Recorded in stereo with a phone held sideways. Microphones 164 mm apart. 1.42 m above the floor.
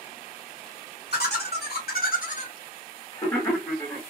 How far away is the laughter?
About 1.3 m.